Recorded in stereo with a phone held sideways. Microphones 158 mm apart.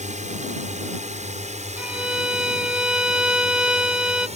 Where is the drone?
55° right (ahead or behind); by 4.4 s 50° right (ahead or behind).